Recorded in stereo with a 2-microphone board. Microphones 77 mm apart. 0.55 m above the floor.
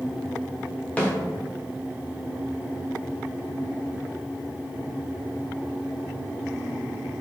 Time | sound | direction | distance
1.0 | a snare drum | 20° left (ahead or behind) | 0.8 m